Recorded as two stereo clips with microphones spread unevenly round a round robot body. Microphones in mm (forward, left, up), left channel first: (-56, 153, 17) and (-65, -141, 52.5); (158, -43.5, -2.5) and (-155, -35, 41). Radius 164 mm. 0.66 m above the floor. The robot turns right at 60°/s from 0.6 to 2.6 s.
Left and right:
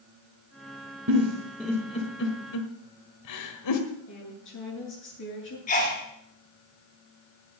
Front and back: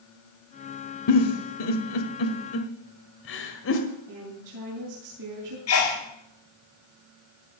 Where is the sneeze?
30° left, 2 m.